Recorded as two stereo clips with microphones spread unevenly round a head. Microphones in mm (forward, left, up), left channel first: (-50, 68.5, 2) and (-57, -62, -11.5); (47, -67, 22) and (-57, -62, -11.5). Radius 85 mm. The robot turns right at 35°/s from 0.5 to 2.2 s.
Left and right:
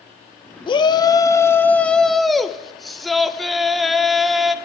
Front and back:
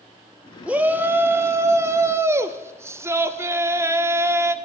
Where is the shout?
130° left, 0.8 m; by 4.5 s 175° right, 0.8 m.